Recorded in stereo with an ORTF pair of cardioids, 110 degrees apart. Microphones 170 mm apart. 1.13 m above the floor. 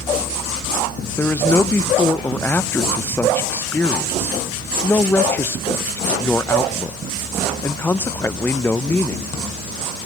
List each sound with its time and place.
1.2 s a man speaking: 10° left, 0.5 m